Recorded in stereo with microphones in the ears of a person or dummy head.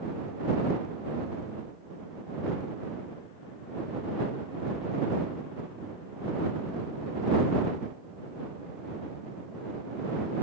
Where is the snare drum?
No snare drum in this recording.